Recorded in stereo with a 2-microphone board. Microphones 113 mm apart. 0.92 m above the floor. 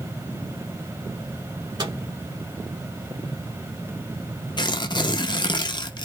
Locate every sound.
1.8 s a microwave: 45° right (ahead or behind), 1.6 m
4.6 s tearing paper: 40° left (ahead or behind), 0.5 m